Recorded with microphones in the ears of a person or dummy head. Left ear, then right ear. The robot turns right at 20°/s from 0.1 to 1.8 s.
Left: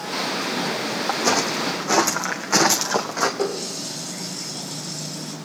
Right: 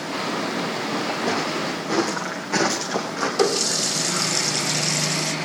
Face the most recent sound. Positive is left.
turn(degrees=-70)  # may be behind; listen again after turning